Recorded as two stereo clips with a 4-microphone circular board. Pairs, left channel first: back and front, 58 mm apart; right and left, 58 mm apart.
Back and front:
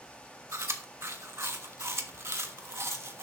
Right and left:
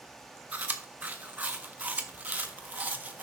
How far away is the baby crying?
I don't hear a baby crying.